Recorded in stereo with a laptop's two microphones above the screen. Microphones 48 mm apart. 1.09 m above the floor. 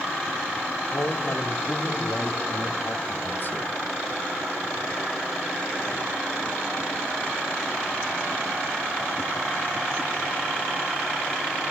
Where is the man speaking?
65° left (ahead or behind), 3.5 m; by 3.7 s 40° left (ahead or behind), 1.0 m.